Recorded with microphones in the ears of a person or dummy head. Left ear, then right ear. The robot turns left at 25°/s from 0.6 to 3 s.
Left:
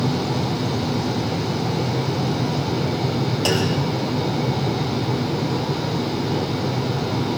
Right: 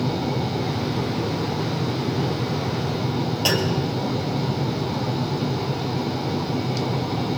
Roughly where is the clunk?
Centre.